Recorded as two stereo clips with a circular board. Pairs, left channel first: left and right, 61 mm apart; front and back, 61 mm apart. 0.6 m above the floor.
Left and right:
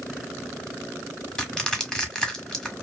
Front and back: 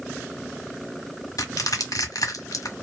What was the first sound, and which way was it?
Crushing, 10° left.